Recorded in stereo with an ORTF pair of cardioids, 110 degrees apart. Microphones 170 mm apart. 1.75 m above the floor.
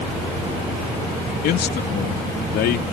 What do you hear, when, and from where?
1.4 s a man speaking: 70° left; by 2.8 s 80° left